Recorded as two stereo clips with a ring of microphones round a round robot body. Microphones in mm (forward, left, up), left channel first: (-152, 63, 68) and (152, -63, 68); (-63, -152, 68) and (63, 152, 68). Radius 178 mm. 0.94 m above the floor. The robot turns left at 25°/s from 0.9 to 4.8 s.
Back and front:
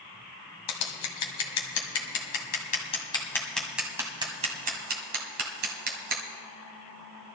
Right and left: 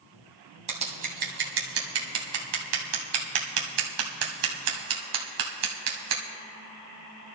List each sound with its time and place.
0.7 s scissors: 135° left, 1.4 m; by 6.2 s 40° left, 1.4 m